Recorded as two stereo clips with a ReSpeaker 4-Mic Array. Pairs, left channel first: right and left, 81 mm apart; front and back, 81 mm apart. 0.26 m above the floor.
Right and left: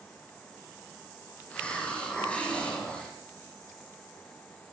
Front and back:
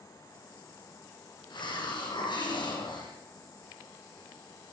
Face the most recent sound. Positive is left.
turn(degrees=-15)